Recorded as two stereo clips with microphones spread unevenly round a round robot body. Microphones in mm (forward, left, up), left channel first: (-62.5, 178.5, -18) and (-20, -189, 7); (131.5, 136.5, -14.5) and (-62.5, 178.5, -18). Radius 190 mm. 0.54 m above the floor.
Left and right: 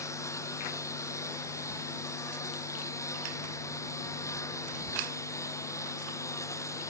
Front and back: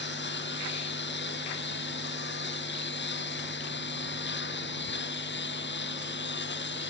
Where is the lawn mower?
15° left.